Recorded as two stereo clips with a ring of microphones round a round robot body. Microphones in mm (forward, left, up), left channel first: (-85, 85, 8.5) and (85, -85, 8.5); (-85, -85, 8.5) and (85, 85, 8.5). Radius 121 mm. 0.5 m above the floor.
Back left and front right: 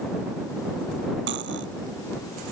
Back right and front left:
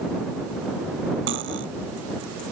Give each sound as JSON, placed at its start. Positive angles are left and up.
{"t": 1.3, "sound": "cutlery clinking", "azimuth_deg": 0}